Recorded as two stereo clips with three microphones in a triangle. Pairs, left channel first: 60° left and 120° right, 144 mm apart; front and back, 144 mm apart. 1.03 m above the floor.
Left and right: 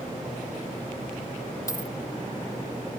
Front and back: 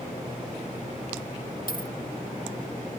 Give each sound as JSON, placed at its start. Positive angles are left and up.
{"t": 1.7, "sound": "a dropped coin", "azimuth_deg": -5}